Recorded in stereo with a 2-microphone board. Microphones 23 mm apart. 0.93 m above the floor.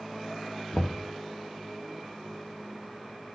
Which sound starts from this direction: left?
Knocking, at 0.7 s.